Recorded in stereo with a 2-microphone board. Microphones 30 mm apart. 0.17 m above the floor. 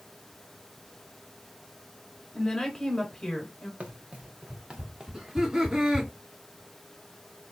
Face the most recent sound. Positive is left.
turn(degrees=-20)  # may be behind; listen again after turning